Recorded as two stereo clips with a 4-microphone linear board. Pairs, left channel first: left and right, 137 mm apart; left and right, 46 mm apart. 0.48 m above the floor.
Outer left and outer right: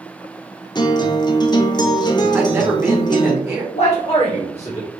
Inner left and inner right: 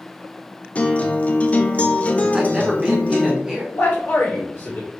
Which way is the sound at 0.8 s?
30° left (ahead or behind).